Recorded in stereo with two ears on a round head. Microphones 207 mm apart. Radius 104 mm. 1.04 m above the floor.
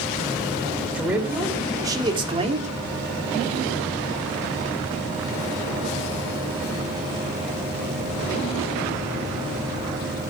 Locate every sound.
0.9 s a man speaking: 5° right (ahead or behind), 3 m; by 2.7 s 35° right (ahead or behind), 2 m